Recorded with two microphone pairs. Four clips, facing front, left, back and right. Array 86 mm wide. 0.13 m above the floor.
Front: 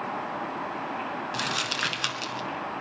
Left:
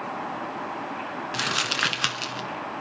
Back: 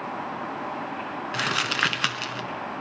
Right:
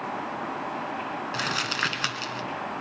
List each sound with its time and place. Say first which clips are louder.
1.3 s crumpling: left 2 dB, back 4 dB; 165° left, 1.3 m